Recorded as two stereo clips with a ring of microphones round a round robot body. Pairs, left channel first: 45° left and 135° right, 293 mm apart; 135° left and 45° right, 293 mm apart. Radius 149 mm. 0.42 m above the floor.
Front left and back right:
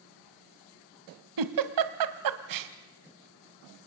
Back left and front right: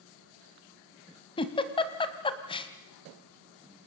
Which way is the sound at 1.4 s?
150° right.